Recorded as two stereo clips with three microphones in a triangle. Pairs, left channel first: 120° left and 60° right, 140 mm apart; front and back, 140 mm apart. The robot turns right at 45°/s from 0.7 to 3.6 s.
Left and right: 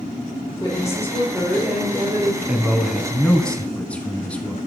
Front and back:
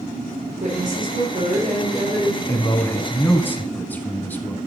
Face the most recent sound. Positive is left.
turn(degrees=55)